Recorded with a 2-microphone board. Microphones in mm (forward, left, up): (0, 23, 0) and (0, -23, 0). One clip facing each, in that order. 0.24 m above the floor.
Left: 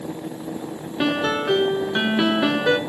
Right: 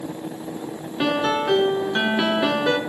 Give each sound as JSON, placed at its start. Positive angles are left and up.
{"t": 1.0, "sound": "a piano", "side_deg": 5, "distance_m": 0.6}